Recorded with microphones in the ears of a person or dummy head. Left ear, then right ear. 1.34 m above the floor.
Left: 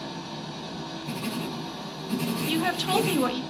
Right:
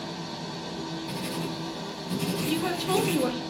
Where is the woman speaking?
60° left (ahead or behind), 0.5 m.